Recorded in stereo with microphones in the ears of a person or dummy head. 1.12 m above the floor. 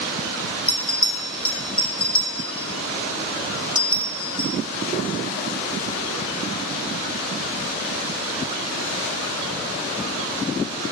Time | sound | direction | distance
0.7 | a bell | 10° left (ahead or behind) | 1.2 m